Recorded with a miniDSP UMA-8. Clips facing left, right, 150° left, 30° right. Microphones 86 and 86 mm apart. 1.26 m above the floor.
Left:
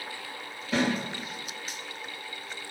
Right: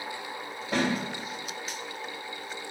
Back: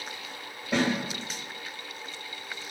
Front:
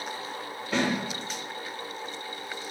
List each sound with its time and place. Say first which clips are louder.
0.7 s a snare drum: left 1 dB, back 1 dB; 140° right, 1.9 m